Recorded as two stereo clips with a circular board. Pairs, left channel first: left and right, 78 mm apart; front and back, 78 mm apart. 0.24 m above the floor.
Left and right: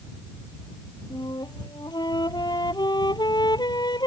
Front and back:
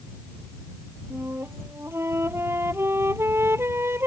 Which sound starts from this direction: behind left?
A flute, at 1.1 s.